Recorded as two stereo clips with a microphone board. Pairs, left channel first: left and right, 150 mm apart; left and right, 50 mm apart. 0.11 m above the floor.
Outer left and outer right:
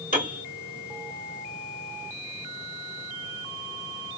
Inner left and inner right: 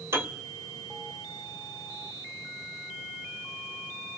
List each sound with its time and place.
0.1 s a piano: 65° right (ahead or behind), 1.4 m